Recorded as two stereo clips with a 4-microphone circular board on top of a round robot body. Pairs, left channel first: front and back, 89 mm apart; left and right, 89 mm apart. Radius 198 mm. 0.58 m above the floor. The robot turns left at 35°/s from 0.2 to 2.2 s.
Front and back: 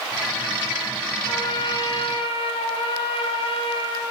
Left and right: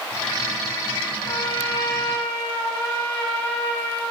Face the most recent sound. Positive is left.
turn(degrees=15)